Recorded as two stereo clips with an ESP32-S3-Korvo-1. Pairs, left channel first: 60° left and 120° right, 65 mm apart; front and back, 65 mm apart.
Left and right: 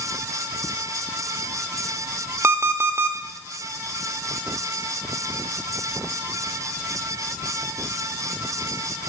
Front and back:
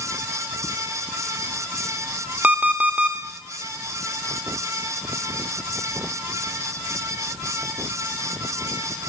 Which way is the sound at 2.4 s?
125° right.